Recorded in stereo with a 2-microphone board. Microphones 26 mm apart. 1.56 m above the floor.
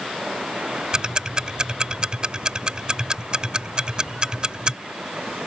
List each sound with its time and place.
0.9 s ticking: 30° right (ahead or behind)